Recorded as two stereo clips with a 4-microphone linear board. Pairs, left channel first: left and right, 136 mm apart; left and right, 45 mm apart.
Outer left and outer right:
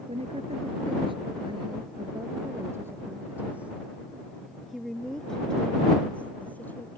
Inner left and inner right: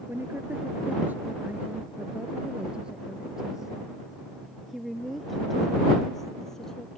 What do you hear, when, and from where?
0.1 s a woman speaking: 50° right (ahead or behind); by 7.0 s 15° left (ahead or behind)